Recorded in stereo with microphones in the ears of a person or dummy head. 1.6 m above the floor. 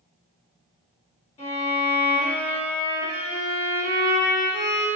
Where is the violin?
25° left (ahead or behind), 1.3 m.